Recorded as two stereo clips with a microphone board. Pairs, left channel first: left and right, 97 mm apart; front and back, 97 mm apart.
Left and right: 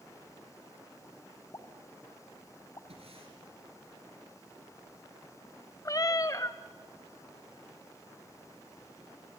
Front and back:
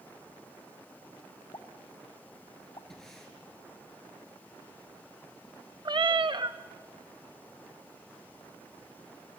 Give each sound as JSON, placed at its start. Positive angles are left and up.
{"t": 1.5, "sound": "a pop", "azimuth_deg": 40, "distance_m": 1.3}
{"t": 2.9, "sound": "breathing", "azimuth_deg": -85, "distance_m": 5.0}
{"t": 5.8, "sound": "a cat meowing", "azimuth_deg": 140, "distance_m": 0.7}